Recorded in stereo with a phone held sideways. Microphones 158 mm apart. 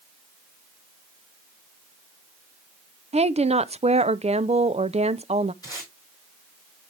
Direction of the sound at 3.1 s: 45° right (ahead or behind).